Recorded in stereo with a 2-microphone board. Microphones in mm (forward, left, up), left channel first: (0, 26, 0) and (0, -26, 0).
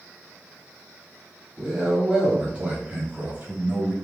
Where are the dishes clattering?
I don't hear dishes clattering.